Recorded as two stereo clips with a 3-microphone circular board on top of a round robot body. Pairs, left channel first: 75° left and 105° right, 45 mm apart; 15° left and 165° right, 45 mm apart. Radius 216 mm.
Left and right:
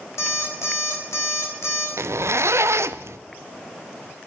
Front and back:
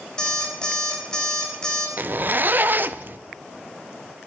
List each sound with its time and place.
0.2 s an alarm clock: 90° left, 3.5 m
2.0 s a zipper: 120° right, 0.6 m